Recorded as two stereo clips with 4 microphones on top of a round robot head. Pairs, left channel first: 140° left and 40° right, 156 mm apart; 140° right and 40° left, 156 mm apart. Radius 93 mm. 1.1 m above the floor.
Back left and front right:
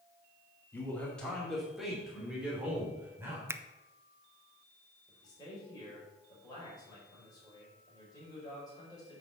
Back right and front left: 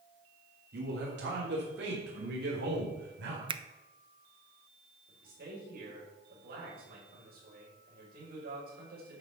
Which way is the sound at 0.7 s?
60° left.